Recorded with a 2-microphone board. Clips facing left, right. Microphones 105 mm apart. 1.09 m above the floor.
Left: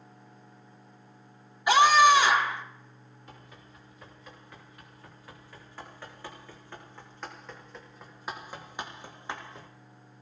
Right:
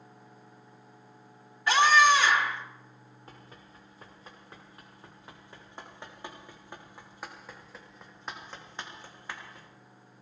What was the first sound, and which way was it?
A scream, 15° left (ahead or behind).